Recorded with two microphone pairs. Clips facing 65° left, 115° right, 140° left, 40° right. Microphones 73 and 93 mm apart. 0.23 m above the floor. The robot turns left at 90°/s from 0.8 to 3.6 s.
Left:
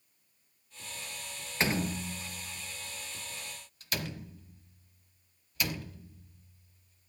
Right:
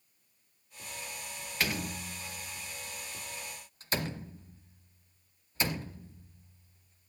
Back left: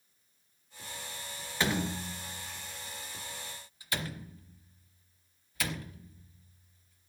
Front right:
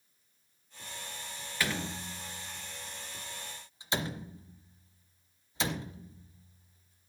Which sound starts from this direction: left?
A door slam, at 1.6 s.